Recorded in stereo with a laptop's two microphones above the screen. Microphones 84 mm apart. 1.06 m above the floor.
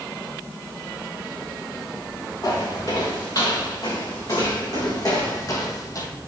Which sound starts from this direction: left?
Footsteps, at 2.4 s.